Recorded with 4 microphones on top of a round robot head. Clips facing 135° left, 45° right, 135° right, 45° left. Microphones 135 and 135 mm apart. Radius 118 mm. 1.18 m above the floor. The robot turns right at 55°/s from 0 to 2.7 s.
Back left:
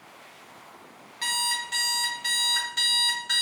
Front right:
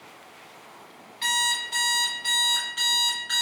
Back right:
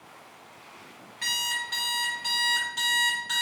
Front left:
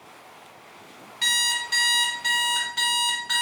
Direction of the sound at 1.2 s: 90° left.